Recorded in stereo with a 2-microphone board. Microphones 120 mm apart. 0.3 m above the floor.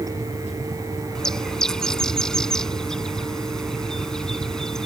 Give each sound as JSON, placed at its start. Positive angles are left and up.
{"t": 1.1, "sound": "a bird", "side_deg": 5}